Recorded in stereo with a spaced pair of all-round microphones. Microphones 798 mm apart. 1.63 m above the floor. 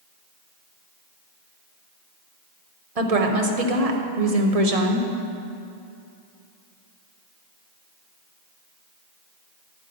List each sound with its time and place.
3.0 s a woman speaking: 50° right (ahead or behind), 1.0 m